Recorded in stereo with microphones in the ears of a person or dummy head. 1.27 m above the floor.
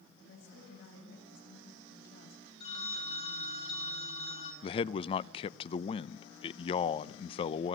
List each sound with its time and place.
0.2 s a woman speaking: 70° left (ahead or behind), 8.5 m
2.6 s a phone ringing: 40° left (ahead or behind), 2.5 m
4.6 s a man speaking: 25° left (ahead or behind), 0.6 m